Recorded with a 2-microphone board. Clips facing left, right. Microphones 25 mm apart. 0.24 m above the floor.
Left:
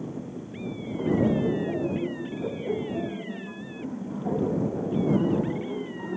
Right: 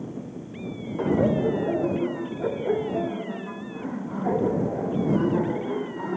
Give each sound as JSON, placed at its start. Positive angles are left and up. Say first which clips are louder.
{"t": 1.0, "sound": "laughter", "louder": "right 2 dB", "side_deg": -55}